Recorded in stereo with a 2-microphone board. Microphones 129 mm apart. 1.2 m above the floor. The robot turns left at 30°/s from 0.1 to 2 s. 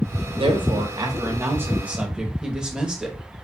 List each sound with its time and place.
0.3 s a woman speaking: 120° right, 1.0 m; by 3.2 s 170° right, 1.0 m